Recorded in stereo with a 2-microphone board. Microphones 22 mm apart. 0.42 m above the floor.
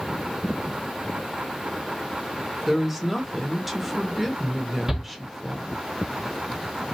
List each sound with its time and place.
2.7 s a woman speaking: 5° right (ahead or behind), 1.2 m
4.9 s a shout: 15° right (ahead or behind), 1.5 m